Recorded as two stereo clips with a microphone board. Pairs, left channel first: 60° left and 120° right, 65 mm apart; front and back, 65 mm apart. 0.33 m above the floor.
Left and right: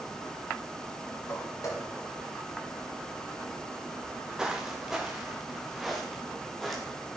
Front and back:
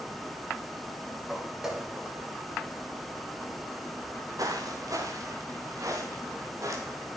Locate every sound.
1.3 s footsteps: 95° left, 8 m; by 3.9 s 90° left, 6.5 m
4.0 s footsteps: 165° left, 3 m; by 7.1 s 145° left, 4 m